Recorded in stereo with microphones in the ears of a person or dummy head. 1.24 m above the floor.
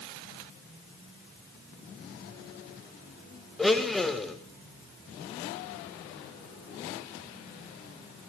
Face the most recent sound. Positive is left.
turn(degrees=0)  # may be behind; listen again after turning